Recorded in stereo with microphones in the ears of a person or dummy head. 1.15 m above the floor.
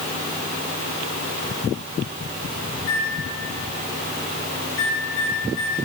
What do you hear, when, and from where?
2.8 s a microwave: 70° left (ahead or behind), 5 m